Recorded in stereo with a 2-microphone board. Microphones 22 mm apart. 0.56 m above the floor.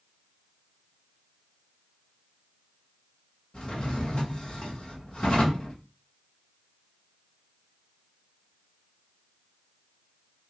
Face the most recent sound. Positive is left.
turn(degrees=45)  # may be behind; listen again after turning